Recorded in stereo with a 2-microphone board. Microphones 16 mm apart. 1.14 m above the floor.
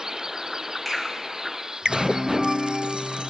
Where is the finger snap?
15° left (ahead or behind), 2.5 m.